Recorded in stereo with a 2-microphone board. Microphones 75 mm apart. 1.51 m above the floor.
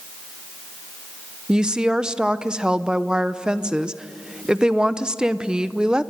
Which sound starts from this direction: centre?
A woman speaking, at 1.5 s.